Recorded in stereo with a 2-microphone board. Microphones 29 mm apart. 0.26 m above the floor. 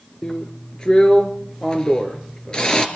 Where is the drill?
30° left (ahead or behind), 2.5 m.